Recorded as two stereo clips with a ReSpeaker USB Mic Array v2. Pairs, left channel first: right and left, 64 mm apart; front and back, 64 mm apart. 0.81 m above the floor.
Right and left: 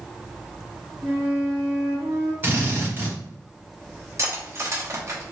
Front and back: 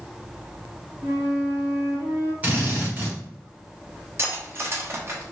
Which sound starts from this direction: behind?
A flute, at 1.0 s.